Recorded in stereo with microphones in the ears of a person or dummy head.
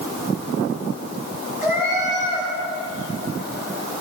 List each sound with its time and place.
1.6 s a cat meowing: 10° right (ahead or behind), 5.5 m